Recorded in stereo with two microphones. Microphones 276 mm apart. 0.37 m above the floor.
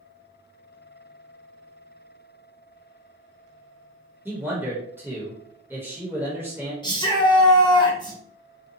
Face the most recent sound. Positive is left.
turn(degrees=15)  # may be behind; listen again after turning